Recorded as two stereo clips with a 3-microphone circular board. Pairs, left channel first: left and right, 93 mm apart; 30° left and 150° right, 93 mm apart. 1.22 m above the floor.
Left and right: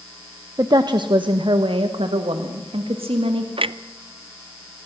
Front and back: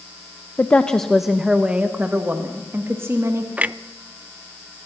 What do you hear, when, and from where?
0.6 s a woman speaking: 40° right, 0.8 m; by 3.5 s 90° right, 2 m
3.6 s a clunk: 75° right, 0.5 m